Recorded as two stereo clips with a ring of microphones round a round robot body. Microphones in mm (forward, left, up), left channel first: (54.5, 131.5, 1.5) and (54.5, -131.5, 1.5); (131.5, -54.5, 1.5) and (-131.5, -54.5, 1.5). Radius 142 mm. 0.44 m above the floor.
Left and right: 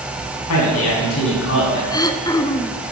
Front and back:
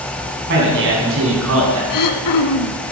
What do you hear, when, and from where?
0.5 s a man speaking: 125° left, 4.5 m; by 1.8 s 140° left, 5 m
1.9 s throat clearing: 15° left, 1.1 m